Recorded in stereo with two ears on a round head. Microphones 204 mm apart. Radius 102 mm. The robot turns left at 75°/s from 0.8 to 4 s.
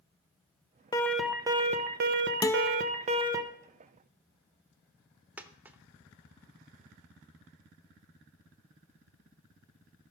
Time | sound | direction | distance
0.9 | an alarm | 20° left | 0.9 m
2.4 | a guitar | 15° left (ahead or behind) | 0.5 m
5.4 | a dropped coin | 5° right (ahead or behind) | 0.8 m